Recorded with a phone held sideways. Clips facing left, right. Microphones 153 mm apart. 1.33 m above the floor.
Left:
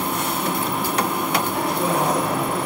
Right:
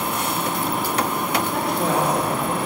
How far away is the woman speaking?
About 2 m.